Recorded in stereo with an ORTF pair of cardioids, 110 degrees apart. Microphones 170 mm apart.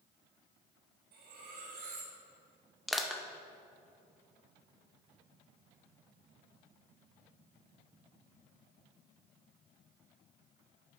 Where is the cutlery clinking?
70° right, 1.9 m.